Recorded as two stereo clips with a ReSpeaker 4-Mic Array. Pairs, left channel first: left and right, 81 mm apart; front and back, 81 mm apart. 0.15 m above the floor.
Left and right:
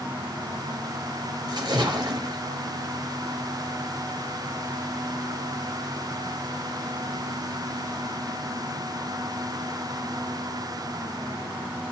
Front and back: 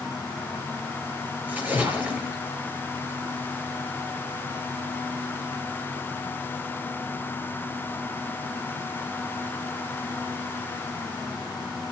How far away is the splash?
About 3.5 m.